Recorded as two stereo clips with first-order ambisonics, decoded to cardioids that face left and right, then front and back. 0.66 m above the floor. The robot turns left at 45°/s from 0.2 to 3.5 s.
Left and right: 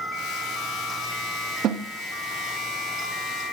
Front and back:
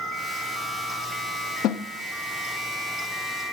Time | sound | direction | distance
1.6 | a snare drum | 40° right | 0.6 m